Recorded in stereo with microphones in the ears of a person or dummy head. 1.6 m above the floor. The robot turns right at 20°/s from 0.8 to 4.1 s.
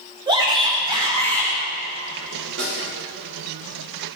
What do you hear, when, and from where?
0.3 s a shout: 20° right (ahead or behind), 2.5 m; by 1.5 s 35° right (ahead or behind), 2.5 m
2.6 s a snare drum: 75° right (ahead or behind), 4.5 m; by 2.8 s 70° right (ahead or behind), 4.5 m